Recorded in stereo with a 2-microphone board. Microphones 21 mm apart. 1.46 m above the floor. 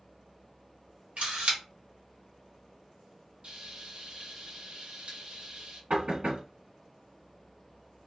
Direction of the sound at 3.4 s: 60° right (ahead or behind).